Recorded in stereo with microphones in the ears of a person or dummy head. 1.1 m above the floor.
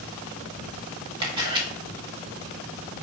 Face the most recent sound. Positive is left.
turn(degrees=-30)  # may be behind; listen again after turning